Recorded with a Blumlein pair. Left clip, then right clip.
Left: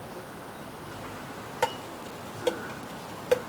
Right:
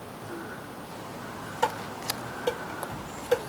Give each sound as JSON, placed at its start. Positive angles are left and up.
{"t": 1.6, "sound": "dishes clattering", "azimuth_deg": 65, "distance_m": 2.0}